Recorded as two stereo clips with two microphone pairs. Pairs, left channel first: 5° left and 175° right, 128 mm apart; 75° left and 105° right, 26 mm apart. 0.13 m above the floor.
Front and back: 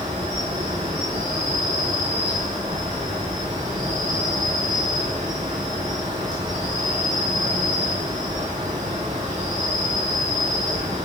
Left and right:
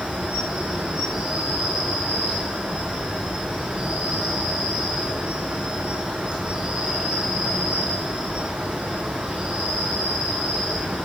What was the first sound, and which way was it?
An insect, 150° right.